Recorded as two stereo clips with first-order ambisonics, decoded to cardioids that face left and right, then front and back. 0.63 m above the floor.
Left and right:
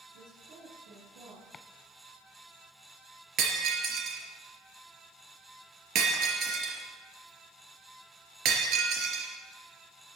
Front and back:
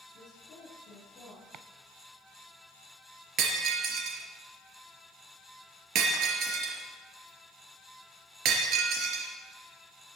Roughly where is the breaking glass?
Behind right.